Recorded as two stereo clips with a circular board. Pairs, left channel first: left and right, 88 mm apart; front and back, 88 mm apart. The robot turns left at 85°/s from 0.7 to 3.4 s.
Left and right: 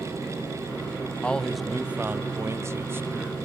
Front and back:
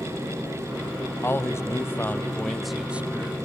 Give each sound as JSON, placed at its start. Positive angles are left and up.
{"t": 1.2, "sound": "a man speaking", "azimuth_deg": 30, "distance_m": 1.1}